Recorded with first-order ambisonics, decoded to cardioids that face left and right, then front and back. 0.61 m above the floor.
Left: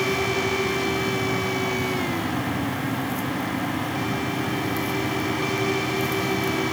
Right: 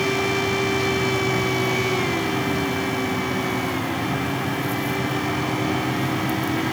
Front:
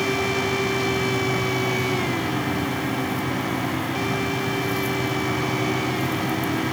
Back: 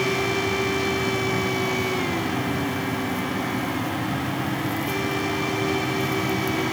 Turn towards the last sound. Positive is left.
No sound to turn to.